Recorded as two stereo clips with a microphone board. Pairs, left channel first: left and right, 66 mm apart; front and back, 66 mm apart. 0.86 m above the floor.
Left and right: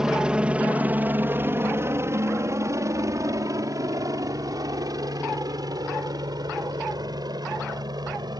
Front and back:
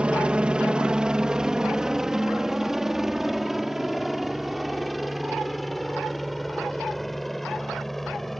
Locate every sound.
0.0 s a helicopter: 150° right; by 8.4 s 90° right